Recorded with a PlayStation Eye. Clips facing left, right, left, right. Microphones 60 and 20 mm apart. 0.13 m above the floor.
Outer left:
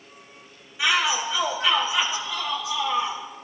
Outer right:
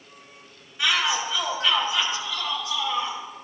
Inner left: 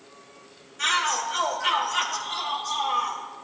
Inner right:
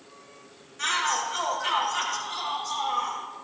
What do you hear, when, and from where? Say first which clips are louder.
0.8 s a shout: outer left 1 dB, inner left 2 dB; 5° left (ahead or behind), 5.5 m